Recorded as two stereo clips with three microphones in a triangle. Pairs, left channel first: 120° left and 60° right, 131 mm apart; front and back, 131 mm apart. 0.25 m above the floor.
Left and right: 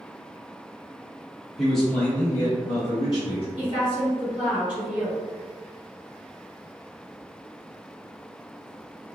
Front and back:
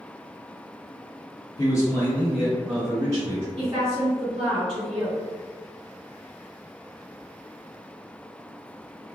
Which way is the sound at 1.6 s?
25° left.